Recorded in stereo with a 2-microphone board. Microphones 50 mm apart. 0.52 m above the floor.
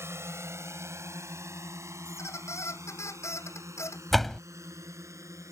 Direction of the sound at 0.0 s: 60° right (ahead or behind).